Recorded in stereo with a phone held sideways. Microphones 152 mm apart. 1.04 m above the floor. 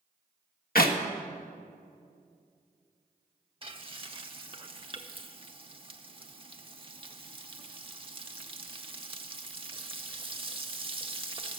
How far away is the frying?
About 0.7 m.